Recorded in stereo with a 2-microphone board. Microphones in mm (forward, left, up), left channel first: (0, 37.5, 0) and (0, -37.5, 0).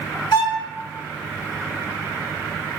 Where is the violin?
65° left (ahead or behind), 1.2 m.